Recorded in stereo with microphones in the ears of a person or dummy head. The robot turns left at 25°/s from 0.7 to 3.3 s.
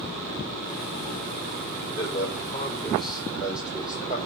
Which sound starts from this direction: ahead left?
A man speaking, at 2.0 s.